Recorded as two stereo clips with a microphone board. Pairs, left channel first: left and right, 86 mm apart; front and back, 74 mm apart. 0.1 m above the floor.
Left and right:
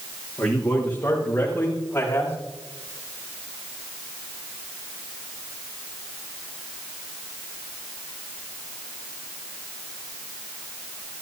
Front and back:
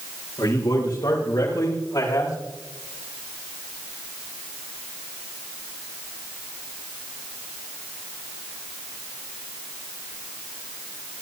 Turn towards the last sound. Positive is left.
turn(degrees=25)